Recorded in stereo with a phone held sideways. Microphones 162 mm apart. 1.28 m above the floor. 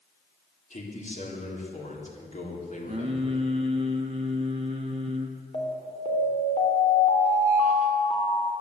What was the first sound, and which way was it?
A man speaking, 50° left (ahead or behind).